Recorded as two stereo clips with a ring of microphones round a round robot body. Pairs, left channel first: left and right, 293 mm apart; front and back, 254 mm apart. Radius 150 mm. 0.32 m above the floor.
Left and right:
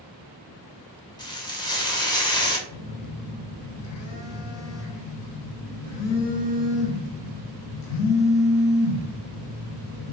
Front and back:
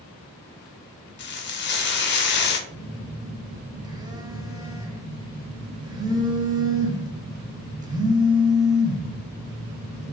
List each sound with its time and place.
1.2 s frying: 20° left, 0.6 m
2.7 s a phone buzzing: 105° left, 0.6 m